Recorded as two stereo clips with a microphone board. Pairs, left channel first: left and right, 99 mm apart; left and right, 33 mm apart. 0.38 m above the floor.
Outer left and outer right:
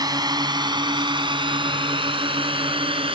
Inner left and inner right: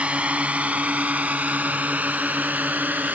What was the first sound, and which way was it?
A drone, 40° right (ahead or behind).